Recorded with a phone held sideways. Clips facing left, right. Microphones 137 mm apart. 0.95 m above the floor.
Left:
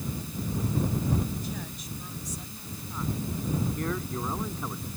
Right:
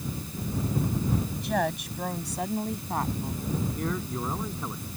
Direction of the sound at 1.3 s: 75° right (ahead or behind).